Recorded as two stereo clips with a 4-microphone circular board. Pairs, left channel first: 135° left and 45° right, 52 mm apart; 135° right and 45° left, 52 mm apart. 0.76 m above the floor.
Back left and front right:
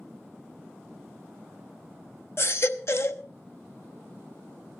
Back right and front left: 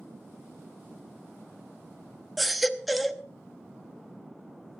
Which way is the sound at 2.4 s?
135° left.